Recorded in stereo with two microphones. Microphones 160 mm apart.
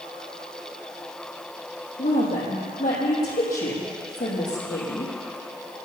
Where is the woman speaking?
60° left (ahead or behind), 5 m.